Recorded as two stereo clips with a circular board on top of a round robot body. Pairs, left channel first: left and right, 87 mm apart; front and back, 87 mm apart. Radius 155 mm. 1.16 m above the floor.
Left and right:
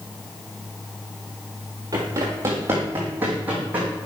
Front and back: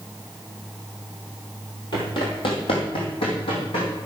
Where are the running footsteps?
40° right, 1.7 m; by 3.9 s 20° right, 3.5 m.